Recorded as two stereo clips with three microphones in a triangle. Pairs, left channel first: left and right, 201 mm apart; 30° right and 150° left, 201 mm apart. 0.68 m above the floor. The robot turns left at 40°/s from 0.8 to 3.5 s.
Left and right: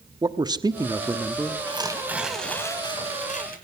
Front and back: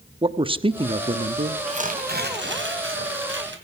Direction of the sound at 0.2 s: 155° right.